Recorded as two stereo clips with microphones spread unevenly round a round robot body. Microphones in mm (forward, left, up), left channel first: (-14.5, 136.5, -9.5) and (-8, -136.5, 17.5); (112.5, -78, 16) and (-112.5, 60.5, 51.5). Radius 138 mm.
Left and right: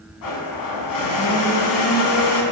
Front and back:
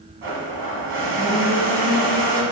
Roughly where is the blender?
Left.